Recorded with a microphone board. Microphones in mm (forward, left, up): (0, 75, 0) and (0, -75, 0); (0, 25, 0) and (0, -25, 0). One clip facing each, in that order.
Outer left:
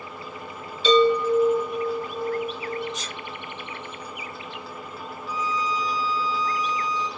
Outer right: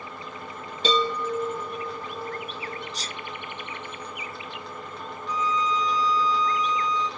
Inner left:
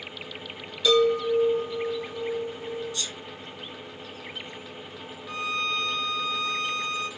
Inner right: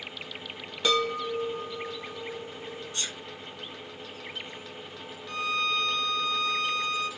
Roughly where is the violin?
Centre.